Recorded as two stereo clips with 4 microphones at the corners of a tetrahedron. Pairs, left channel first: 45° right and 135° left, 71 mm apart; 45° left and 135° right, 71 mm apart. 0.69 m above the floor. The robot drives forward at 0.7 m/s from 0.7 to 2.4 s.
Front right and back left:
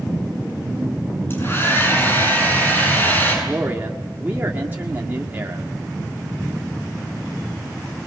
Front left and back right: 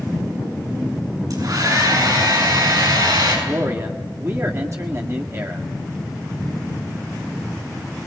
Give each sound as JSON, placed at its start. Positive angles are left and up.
{"t": 1.3, "sound": "a hair dryer", "azimuth_deg": -105, "distance_m": 7.5}
{"t": 3.5, "sound": "a man speaking", "azimuth_deg": -170, "distance_m": 1.9}